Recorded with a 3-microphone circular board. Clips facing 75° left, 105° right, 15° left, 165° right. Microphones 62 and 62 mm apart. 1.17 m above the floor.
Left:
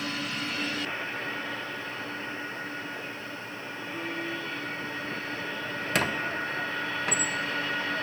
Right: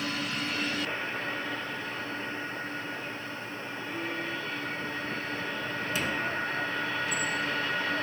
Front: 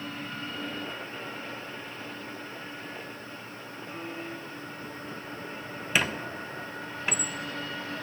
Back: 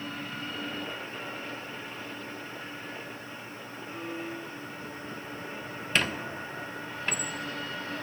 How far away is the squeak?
About 0.7 m.